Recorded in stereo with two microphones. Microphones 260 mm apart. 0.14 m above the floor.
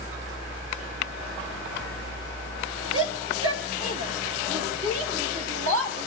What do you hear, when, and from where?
2.9 s a shout: 55° right (ahead or behind), 3.5 m; by 6.1 s 60° right (ahead or behind), 5.5 m